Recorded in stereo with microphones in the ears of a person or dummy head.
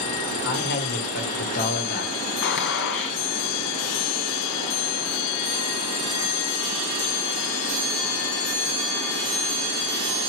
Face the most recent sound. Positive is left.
turn(degrees=65)  # may be behind; listen again after turning